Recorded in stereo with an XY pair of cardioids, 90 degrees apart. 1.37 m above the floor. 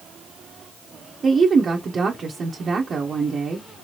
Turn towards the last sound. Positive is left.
turn(degrees=-45)